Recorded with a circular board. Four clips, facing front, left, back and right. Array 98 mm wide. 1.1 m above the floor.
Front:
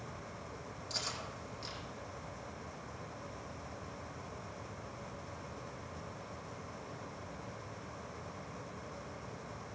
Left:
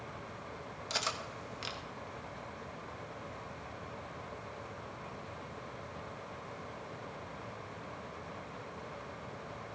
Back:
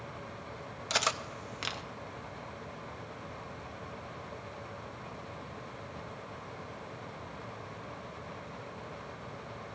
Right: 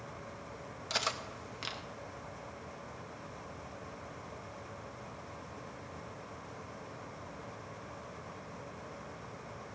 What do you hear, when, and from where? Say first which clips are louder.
0.9 s cutlery clinking: right 1 dB, back 12 dB; 175° right, 0.5 m